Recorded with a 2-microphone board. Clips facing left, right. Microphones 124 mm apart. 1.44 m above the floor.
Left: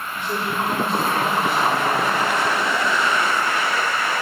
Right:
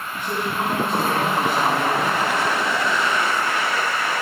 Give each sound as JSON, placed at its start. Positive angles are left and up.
{"t": 0.1, "sound": "a man speaking", "side_deg": -50, "distance_m": 2.0}